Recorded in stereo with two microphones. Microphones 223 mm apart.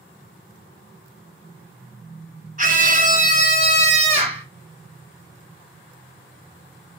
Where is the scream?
40° right (ahead or behind), 1.7 m; by 4.5 s 25° right (ahead or behind), 1.8 m.